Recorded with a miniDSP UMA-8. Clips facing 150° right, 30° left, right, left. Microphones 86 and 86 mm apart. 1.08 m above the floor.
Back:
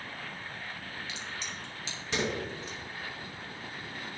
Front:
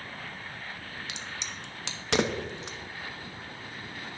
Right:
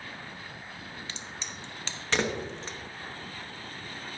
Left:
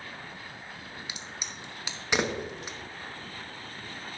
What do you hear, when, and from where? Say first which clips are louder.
1.1 s a crack: even, even; 15° left, 0.8 m